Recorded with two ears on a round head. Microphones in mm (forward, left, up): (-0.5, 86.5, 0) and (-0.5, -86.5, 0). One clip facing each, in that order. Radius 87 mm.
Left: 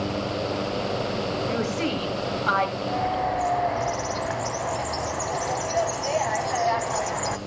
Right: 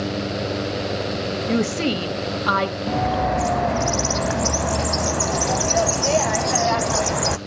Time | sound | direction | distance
1.5 | a woman speaking | 65° right (ahead or behind) | 2 m
2.9 | a bird | 55° right (ahead or behind) | 0.6 m